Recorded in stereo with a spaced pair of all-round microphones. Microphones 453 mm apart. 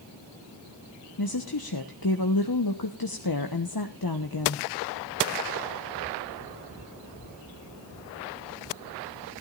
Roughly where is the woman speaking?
Left.